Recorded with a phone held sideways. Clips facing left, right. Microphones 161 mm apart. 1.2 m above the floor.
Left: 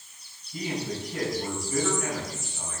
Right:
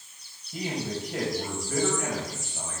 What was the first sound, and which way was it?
A man speaking, 75° right (ahead or behind).